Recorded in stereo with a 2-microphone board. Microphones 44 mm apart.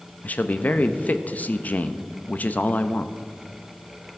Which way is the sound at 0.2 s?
40° left (ahead or behind).